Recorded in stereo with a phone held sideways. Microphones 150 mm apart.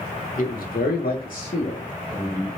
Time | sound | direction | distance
0.4 | a man speaking | 65° left (ahead or behind) | 0.8 m